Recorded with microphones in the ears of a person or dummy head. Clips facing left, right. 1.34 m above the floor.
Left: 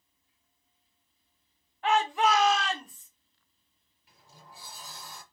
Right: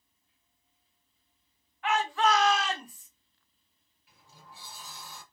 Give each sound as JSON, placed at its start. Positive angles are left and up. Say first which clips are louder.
{"t": 1.8, "sound": "a shout", "louder": "left 2 dB", "side_deg": 30, "distance_m": 0.8}
{"t": 4.1, "sound": "a sliding door", "louder": "left 1 dB", "side_deg": 35, "distance_m": 1.3}